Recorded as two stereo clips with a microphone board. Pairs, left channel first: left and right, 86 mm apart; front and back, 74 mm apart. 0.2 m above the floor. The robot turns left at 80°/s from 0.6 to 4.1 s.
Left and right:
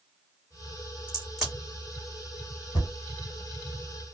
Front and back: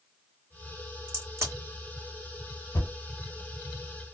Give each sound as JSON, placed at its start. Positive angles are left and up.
{"t": 1.1, "sound": "a crack", "azimuth_deg": -150, "distance_m": 1.8}
{"t": 2.7, "sound": "a thud", "azimuth_deg": 55, "distance_m": 1.2}